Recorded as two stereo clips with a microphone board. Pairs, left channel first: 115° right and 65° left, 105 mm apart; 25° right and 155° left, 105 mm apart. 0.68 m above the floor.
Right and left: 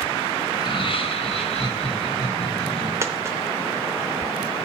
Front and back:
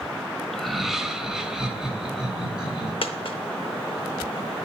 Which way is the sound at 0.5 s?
110° right.